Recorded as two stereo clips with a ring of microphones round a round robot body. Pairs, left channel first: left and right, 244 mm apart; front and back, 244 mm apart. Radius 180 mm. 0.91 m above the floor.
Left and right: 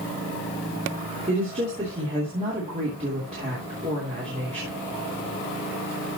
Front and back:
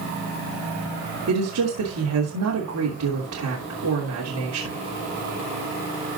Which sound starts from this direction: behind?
A woman speaking, at 1.3 s.